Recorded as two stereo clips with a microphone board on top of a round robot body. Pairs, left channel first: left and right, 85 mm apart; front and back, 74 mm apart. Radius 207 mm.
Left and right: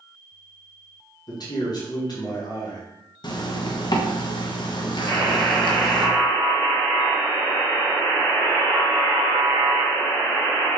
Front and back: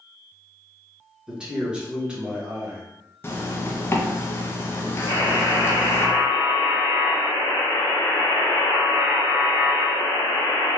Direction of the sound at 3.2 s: 55° left.